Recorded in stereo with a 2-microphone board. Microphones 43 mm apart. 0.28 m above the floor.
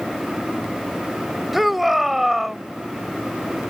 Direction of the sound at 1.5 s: 5° right (ahead or behind).